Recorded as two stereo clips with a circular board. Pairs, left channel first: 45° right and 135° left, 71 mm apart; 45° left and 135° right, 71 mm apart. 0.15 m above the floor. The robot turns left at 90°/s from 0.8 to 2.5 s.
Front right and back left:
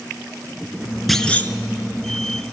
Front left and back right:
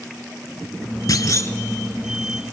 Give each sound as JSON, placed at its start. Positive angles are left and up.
{"t": 1.1, "sound": "a clunk", "azimuth_deg": 45, "distance_m": 0.7}